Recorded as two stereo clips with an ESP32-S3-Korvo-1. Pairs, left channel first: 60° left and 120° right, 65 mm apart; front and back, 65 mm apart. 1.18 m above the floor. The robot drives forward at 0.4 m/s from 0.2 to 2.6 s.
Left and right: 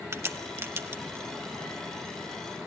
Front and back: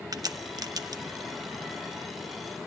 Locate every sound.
0.1 s a crack: 170° right, 1.0 m